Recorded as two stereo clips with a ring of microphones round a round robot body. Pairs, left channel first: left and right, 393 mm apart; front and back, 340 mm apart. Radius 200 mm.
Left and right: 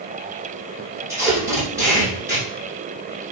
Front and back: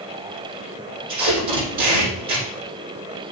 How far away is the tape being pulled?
About 4.5 m.